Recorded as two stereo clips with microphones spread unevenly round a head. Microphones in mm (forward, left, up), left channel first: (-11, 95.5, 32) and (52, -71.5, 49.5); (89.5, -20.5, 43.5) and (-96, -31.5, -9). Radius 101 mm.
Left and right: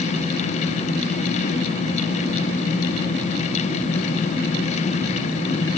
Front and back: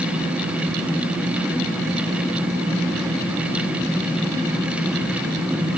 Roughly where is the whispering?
I don't hear whispering.